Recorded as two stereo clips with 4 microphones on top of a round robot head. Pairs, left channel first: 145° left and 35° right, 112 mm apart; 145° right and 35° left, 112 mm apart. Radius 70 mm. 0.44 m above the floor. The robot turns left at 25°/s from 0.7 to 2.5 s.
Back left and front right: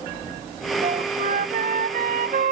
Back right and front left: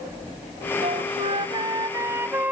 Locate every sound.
0.8 s a flute: straight ahead; by 2.5 s 45° right